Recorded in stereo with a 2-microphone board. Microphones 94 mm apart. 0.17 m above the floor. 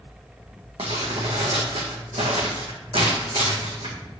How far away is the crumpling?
About 1.8 m.